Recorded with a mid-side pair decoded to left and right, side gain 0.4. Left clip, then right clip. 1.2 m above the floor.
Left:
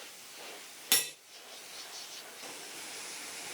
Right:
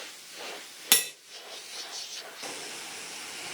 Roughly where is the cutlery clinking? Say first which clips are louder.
Right 5 dB; ahead right.